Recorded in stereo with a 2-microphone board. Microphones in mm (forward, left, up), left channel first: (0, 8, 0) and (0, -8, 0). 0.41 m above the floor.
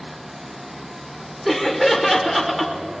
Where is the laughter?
Centre (ahead or behind), 1.4 m.